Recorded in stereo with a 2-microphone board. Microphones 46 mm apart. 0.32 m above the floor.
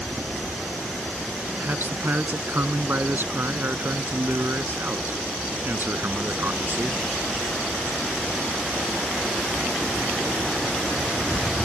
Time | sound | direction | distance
1.6 | a man speaking | 50° right (ahead or behind) | ?